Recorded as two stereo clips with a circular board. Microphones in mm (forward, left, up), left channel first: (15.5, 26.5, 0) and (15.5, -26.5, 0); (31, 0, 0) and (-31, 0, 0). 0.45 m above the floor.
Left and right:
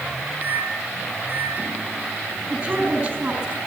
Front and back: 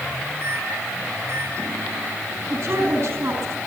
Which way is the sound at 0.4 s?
140° right.